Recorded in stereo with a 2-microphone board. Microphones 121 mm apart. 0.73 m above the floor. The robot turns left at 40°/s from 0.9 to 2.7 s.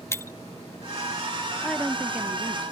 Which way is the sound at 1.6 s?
5° left.